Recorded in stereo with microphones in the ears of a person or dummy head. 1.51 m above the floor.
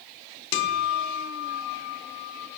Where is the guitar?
55° left (ahead or behind), 0.7 m.